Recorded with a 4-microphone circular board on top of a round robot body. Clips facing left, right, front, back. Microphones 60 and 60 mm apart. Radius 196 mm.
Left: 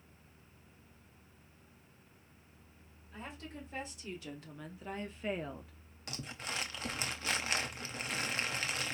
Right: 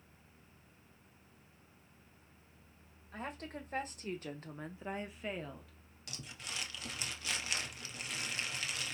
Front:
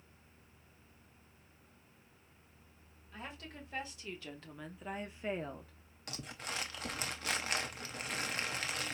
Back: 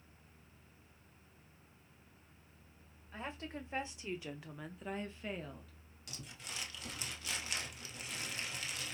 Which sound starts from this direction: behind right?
A woman speaking, at 3.1 s.